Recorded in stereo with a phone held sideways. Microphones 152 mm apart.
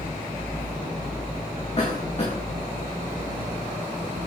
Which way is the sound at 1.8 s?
40° left (ahead or behind).